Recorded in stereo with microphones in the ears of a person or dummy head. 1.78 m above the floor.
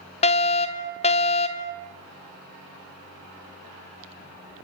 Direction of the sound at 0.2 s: 30° left (ahead or behind).